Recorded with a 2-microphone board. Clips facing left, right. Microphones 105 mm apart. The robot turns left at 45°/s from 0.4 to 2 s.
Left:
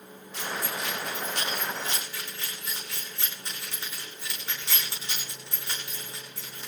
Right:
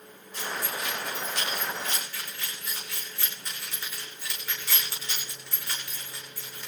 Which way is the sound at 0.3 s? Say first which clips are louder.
Even; 80° left.